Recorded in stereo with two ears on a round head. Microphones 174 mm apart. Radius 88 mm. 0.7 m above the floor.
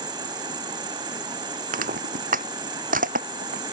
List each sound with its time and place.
0.0 s an insect: 25° right (ahead or behind)
1.7 s crushing: 45° right (ahead or behind)